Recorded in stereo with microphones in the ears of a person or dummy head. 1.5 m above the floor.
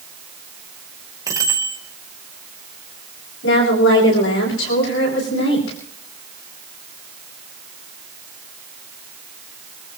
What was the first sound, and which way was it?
A bicycle bell, 20° right (ahead or behind).